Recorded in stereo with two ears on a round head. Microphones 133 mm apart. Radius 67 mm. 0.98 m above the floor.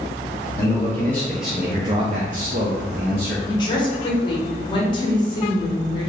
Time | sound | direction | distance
0.6 | a man speaking | 20° left (ahead or behind) | 1.0 m
3.5 | a woman speaking | 30° left (ahead or behind) | 1.0 m